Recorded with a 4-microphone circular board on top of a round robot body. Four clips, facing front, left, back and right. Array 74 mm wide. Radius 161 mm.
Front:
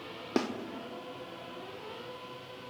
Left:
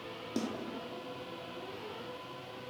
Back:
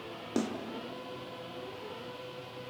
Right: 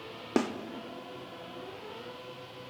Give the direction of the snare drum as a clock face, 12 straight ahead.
2 o'clock.